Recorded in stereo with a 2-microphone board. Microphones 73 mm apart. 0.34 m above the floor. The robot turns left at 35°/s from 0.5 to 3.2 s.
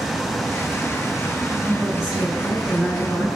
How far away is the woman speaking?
About 1.8 m.